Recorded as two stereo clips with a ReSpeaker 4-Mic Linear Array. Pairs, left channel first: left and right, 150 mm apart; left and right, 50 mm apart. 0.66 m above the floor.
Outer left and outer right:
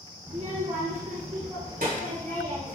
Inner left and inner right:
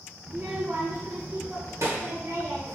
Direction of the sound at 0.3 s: 40° right (ahead or behind).